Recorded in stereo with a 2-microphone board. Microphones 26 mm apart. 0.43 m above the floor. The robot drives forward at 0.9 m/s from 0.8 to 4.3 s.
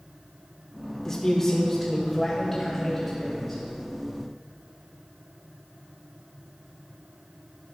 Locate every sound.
1.1 s a man speaking: 20° left (ahead or behind), 0.7 m; by 3.6 s 5° left (ahead or behind), 2.5 m